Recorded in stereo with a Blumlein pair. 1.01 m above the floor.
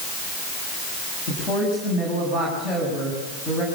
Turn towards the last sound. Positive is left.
turn(degrees=20)